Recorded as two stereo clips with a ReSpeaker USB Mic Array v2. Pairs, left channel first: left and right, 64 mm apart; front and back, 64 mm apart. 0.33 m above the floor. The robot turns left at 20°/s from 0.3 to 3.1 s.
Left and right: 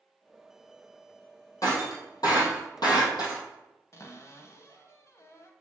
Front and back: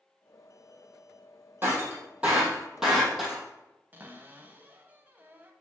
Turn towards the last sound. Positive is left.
turn(degrees=125)